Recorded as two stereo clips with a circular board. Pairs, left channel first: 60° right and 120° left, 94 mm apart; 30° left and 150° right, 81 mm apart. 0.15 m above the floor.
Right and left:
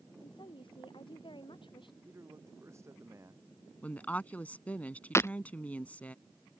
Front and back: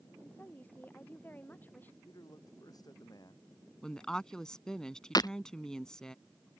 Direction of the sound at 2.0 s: 65° left.